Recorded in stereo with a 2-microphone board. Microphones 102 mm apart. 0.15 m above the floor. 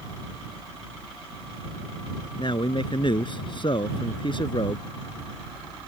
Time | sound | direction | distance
2.4 | a man speaking | 55° left (ahead or behind) | ?